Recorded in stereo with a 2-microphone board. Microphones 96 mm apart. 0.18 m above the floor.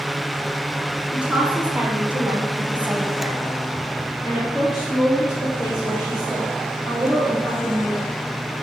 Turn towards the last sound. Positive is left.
turn(degrees=0)  # may be behind; listen again after turning